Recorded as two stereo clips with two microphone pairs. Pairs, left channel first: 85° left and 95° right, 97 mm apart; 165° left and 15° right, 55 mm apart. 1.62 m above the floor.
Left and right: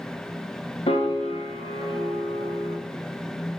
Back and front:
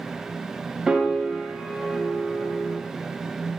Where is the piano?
65° left, 0.7 m.